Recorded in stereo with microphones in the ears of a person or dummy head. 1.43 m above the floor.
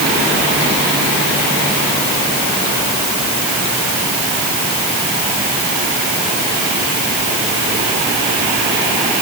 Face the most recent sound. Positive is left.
No sound to turn to.